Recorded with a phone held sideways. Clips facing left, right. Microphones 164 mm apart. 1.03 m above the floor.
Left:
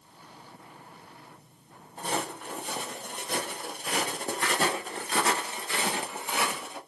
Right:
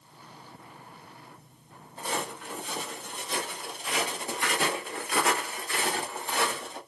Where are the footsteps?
50° left (ahead or behind), 2 m; by 6.8 s 5° left (ahead or behind), 1.3 m.